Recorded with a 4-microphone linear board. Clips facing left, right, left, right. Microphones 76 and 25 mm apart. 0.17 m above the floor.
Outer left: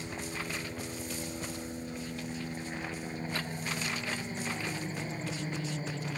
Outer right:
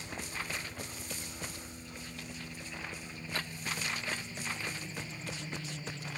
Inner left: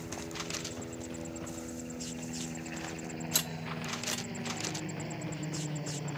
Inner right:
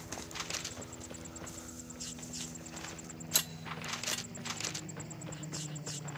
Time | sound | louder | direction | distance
0.0 | a helicopter | outer left 3 dB, inner left 3 dB | 45° left (ahead or behind) | ?